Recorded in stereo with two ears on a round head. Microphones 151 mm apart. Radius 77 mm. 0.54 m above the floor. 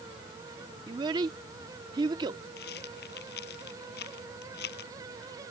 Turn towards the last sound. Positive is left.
turn(degrees=70)  # may be behind; listen again after turning